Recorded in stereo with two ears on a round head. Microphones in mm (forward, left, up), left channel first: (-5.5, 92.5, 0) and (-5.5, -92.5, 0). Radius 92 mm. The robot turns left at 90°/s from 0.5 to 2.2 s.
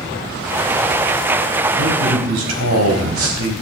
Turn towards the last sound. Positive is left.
turn(degrees=-95)